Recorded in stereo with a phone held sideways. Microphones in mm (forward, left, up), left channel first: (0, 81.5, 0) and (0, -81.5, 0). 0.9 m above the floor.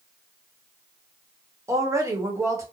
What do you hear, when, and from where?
1.7 s a woman speaking: 20° right (ahead or behind), 0.9 m